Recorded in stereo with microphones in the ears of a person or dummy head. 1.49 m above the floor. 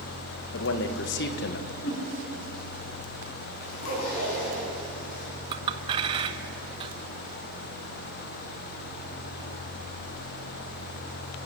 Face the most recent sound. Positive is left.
turn(degrees=-30)  # may be behind; listen again after turning